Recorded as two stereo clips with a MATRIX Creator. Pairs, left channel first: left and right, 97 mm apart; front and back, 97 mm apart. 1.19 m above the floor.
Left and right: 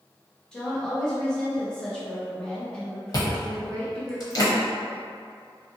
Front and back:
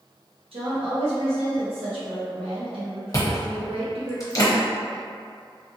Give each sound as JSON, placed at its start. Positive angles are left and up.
{"t": 0.5, "sound": "a woman speaking", "azimuth_deg": 170, "distance_m": 1.2}
{"t": 3.1, "sound": "chewing", "azimuth_deg": 50, "distance_m": 0.9}